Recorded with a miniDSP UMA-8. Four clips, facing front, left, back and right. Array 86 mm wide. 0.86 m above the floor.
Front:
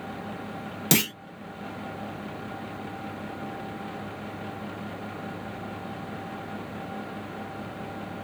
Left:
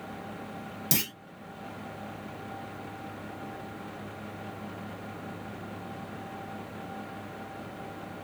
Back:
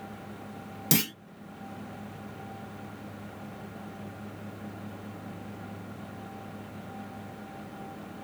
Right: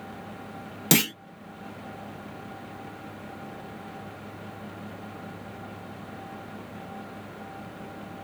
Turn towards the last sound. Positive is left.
turn(degrees=-60)